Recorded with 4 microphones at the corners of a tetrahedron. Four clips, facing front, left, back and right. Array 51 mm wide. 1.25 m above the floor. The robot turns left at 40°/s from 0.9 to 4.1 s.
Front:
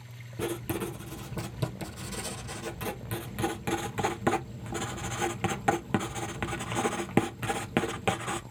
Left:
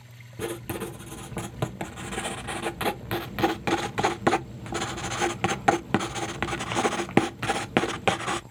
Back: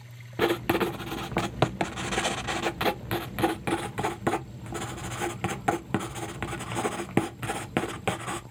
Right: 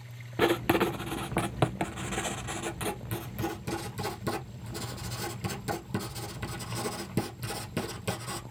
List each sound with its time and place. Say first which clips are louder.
0.4 s writing: right 8 dB, back 8 dB; 135° right, 0.5 m; by 8.4 s 95° left, 0.5 m